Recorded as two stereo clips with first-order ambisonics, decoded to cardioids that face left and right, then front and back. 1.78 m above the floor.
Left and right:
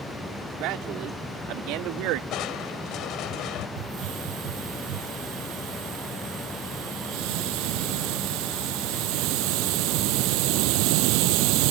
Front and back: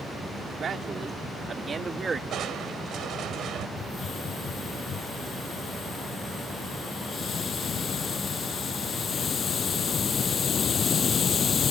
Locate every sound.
0.6 s a man speaking: 120° right; by 2.2 s 110° right
2.3 s crushing: 130° left
3.8 s a hiss: 70° right